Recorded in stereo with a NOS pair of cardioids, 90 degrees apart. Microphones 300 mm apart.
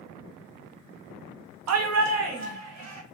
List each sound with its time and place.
1.7 s a shout: 60° right, 0.8 m